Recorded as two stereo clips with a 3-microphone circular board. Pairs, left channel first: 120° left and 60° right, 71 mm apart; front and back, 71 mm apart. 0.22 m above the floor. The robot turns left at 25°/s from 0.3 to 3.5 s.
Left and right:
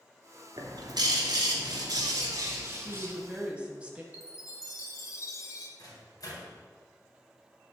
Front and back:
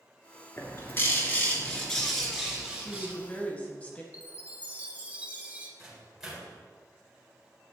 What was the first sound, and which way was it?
A bird, 50° right.